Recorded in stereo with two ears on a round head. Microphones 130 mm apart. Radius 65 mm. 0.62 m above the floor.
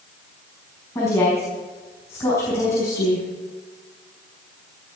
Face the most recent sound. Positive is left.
turn(degrees=20)  # may be behind; listen again after turning